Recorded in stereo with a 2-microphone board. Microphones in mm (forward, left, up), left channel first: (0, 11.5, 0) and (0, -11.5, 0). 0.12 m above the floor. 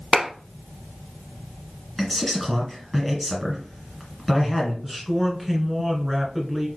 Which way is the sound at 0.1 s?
40° right (ahead or behind).